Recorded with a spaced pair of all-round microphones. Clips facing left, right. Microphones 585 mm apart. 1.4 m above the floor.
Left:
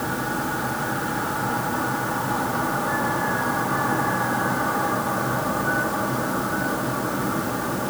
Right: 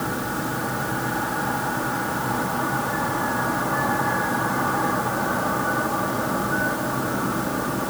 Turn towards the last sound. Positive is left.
No sound to turn to.